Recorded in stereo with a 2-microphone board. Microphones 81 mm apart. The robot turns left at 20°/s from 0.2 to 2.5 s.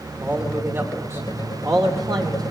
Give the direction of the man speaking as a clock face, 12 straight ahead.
1 o'clock.